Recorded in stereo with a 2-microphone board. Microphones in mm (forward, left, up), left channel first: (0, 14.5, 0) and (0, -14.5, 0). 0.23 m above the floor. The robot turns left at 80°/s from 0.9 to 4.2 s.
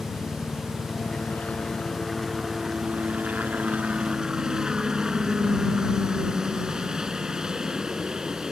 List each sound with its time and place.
0.0 s a helicopter: 115° left; by 8.5 s 150° right